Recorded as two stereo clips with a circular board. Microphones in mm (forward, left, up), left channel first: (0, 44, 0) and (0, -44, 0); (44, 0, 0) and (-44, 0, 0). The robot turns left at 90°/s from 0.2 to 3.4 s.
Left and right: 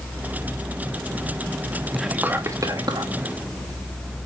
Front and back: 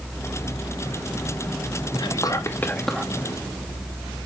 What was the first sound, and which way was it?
Whispering, straight ahead.